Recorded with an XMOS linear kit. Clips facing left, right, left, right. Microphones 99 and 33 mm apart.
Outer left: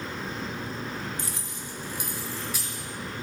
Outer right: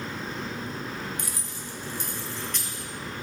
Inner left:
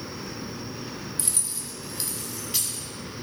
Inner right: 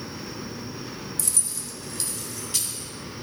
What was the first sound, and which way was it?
Keys jangling, 30° left (ahead or behind).